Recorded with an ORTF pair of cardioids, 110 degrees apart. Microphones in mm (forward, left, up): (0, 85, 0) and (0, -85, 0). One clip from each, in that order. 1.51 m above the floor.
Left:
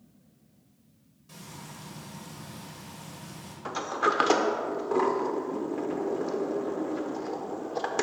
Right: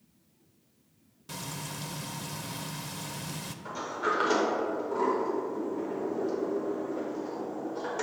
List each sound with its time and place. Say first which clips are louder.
1.3 s frying: right 7 dB; 55° right, 0.5 m
3.6 s a sliding door: left 4 dB; 60° left, 0.8 m